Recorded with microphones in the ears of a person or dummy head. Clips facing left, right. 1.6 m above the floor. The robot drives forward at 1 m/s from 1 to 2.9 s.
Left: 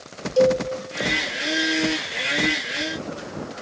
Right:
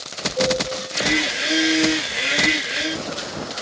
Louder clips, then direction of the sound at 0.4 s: Left 4 dB; 80° left.